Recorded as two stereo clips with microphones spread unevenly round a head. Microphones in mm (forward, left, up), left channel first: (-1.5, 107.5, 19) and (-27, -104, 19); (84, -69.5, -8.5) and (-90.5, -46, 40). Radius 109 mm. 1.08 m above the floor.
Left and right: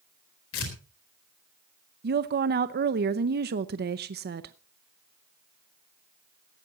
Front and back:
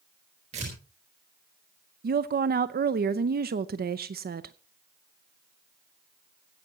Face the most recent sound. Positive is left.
turn(degrees=-145)